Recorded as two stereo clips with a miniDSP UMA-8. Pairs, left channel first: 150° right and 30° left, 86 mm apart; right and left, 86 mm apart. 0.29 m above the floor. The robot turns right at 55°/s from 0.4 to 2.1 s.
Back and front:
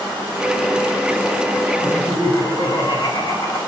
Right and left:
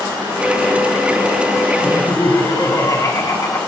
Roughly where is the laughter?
Behind right.